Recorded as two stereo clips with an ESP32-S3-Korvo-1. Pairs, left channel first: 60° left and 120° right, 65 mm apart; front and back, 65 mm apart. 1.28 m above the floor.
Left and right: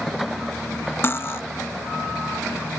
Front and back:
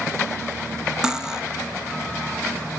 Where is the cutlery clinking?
105° left.